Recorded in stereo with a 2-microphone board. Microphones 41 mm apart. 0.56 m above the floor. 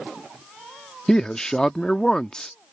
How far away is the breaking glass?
No breaking glass in this recording.